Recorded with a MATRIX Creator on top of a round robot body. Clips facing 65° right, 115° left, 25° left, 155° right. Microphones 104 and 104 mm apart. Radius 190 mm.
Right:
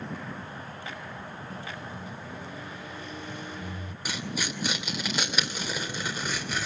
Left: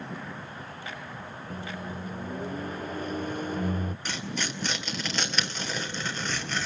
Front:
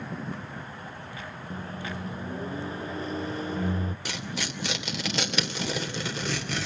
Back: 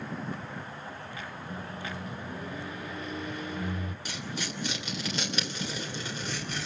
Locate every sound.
1.5 s a microwave: 75° left, 0.8 m
4.0 s tearing paper: 15° left, 3 m